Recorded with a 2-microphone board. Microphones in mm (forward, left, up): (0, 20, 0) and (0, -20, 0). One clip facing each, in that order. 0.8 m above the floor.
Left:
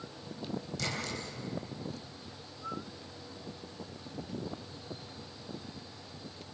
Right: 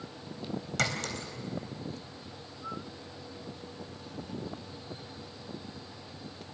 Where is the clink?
75° right (ahead or behind), 3.5 m.